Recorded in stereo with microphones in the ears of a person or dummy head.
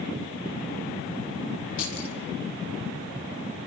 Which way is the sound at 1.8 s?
80° left.